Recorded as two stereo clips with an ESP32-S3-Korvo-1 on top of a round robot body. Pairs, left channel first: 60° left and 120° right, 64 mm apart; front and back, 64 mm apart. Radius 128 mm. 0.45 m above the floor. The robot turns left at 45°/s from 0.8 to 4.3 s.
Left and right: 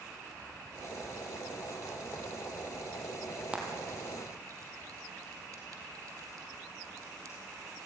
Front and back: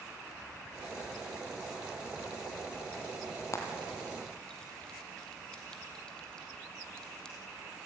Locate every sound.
3.5 s frying: 45° right, 2.5 m; by 7.4 s 80° right, 2.5 m